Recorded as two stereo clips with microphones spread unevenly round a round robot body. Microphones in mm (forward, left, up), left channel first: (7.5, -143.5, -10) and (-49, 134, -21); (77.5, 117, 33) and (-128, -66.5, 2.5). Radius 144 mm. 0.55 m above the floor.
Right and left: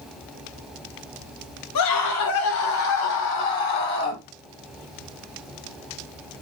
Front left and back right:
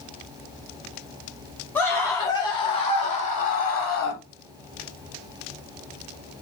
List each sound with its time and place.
1.8 s a scream: 45° right, 3 m; by 4.2 s 15° right, 3.5 m